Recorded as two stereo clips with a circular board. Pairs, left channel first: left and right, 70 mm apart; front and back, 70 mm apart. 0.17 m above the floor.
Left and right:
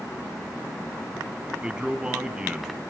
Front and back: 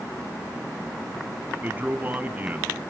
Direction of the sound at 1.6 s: 150° right.